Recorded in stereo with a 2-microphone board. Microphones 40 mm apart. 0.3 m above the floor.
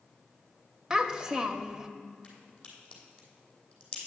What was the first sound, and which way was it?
A child speaking, 15° right (ahead or behind).